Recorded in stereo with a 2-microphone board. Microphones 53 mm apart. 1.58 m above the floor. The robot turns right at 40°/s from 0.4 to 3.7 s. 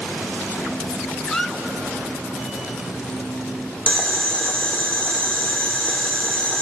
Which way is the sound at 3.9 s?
25° left (ahead or behind).